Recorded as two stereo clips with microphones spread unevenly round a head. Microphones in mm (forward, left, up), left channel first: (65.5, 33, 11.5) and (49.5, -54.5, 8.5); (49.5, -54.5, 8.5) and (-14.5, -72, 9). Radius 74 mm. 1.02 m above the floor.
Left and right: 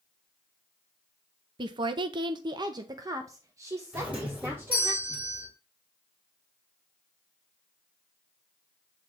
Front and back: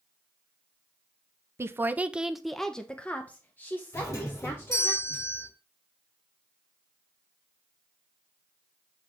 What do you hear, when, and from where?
1.6 s a woman speaking: 125° right, 0.6 m; by 4.9 s 35° right, 1.7 m
3.9 s a doorbell: 25° right, 4 m